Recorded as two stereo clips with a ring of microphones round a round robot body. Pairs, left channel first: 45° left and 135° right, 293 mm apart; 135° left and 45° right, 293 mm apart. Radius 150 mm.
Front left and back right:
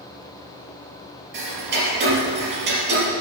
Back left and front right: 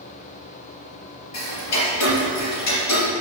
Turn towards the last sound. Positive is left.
turn(degrees=170)